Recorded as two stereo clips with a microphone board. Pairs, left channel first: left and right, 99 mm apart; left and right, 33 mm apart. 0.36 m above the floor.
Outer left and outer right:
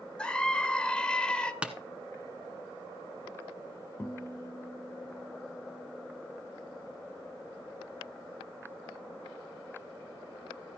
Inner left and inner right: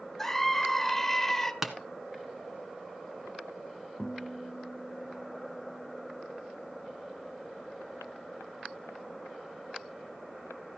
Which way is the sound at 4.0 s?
20° left (ahead or behind).